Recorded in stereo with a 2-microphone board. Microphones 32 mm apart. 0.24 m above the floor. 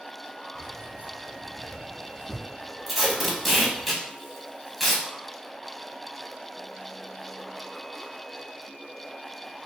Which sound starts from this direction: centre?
Tape being pulled, at 2.9 s.